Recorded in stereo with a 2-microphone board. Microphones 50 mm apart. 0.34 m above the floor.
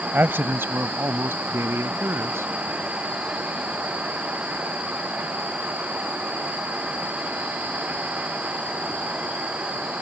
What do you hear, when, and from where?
0.1 s a man speaking: 50° right (ahead or behind); by 2.5 s 65° right (ahead or behind)